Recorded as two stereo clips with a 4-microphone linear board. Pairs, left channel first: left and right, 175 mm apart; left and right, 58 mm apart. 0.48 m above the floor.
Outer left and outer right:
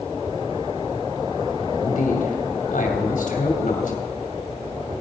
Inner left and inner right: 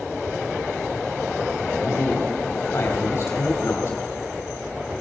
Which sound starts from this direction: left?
A man speaking, at 1.8 s.